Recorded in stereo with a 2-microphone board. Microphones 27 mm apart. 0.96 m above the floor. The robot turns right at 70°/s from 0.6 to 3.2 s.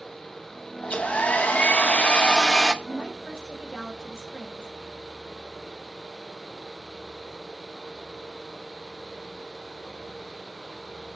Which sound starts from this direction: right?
A woman speaking, at 2.8 s.